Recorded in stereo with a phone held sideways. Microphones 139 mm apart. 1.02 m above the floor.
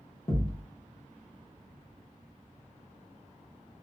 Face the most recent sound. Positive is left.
turn(degrees=45)  # may be behind; listen again after turning